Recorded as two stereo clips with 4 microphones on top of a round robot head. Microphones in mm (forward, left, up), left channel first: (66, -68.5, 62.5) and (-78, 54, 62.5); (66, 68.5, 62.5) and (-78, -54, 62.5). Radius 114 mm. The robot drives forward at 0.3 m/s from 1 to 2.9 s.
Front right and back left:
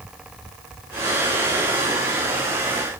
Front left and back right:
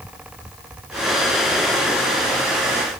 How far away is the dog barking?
No dog barking in this recording.